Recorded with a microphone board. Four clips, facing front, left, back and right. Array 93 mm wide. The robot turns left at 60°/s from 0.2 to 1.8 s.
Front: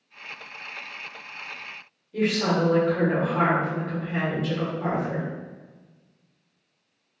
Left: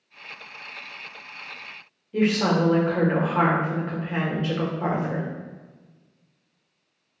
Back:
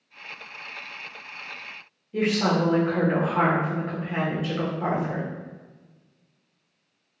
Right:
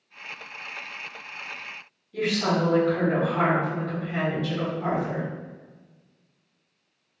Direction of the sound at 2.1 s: 115° left.